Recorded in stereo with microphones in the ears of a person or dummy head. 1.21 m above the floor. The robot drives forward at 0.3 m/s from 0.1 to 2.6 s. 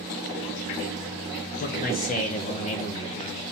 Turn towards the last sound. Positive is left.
turn(degrees=35)  # may be behind; listen again after turning